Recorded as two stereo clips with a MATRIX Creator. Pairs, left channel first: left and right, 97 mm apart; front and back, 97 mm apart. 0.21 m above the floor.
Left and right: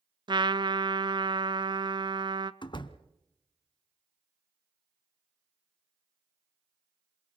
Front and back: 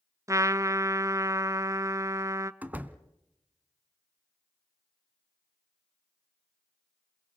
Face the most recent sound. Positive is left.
turn(degrees=110)